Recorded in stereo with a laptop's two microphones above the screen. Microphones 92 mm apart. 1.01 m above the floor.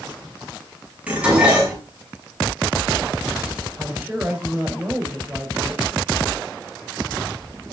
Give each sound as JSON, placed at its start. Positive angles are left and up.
{"t": 1.1, "sound": "dishes clattering", "side_deg": -15, "distance_m": 6.0}
{"t": 3.8, "sound": "a woman speaking", "side_deg": -20, "distance_m": 4.0}